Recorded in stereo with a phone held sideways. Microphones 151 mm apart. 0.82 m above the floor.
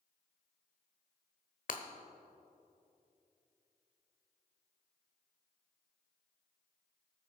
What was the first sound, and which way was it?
Breaking glass, 65° left (ahead or behind).